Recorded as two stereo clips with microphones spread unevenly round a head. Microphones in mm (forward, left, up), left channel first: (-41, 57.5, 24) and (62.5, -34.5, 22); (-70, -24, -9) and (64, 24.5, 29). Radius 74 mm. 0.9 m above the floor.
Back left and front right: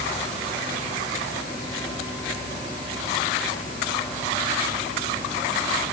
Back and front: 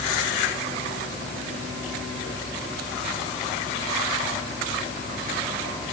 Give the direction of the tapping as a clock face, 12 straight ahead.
No tapping in this recording.